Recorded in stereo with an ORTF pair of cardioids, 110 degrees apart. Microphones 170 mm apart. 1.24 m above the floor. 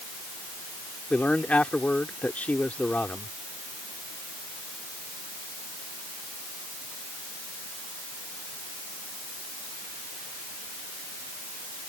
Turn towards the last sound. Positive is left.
turn(degrees=5)